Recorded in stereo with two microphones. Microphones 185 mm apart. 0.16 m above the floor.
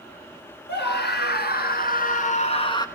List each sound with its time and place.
0.7 s a scream: 65° left (ahead or behind), 2.5 m; by 2.9 s 20° left (ahead or behind), 1.2 m